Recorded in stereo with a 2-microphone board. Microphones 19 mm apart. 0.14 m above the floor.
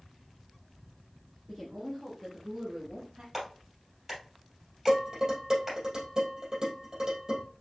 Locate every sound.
1.5 s a woman speaking: 20° left (ahead or behind), 1.9 m; by 3.2 s 40° right (ahead or behind), 1.8 m
3.3 s a clap: 10° right (ahead or behind), 3.5 m
4.9 s dishes clattering: 30° right (ahead or behind), 2.5 m